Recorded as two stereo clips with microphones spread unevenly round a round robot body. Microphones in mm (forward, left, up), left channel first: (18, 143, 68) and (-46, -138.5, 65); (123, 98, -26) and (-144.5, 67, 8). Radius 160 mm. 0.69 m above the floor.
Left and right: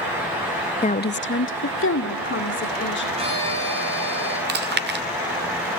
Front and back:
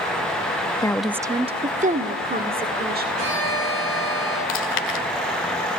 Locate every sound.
0.8 s a woman speaking: 40° left, 0.7 m; by 3.1 s 130° left, 3 m
3.2 s a violin: 175° right, 9.5 m
4.5 s chewing: 45° right, 1.7 m